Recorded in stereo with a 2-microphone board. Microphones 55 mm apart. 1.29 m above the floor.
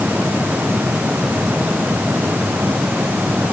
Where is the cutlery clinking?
No cutlery clinking in this recording.